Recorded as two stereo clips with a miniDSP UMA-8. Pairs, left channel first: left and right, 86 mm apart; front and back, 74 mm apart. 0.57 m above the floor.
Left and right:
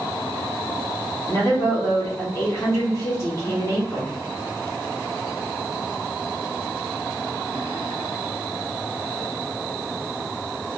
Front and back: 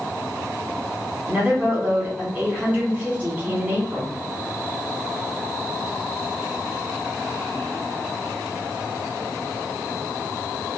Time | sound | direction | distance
1.3 | a woman speaking | 120° left | 1.1 m